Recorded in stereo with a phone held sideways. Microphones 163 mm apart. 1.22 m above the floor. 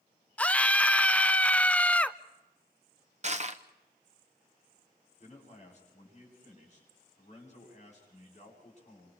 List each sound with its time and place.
0.4 s a scream: 10° left (ahead or behind), 0.7 m
3.2 s crushing: 45° right (ahead or behind), 0.9 m
5.2 s a man speaking: 45° left (ahead or behind), 9.5 m